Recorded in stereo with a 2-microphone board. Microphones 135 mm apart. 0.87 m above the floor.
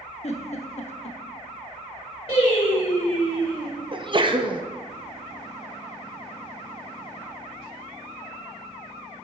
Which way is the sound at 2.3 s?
45° left (ahead or behind).